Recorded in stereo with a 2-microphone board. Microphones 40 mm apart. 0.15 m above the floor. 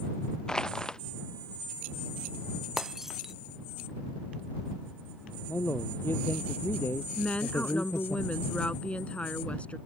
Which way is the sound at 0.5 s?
20° left (ahead or behind).